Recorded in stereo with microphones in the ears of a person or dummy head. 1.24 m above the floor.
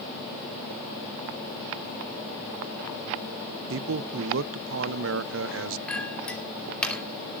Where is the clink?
5° left (ahead or behind), 2.5 m.